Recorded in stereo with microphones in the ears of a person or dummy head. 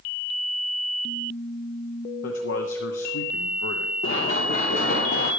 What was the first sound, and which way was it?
A man speaking, 75° left (ahead or behind).